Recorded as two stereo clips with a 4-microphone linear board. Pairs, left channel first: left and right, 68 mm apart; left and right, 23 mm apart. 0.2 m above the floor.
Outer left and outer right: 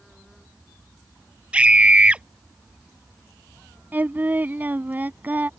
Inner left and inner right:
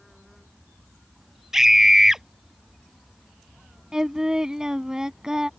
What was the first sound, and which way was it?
A scream, 15° right (ahead or behind).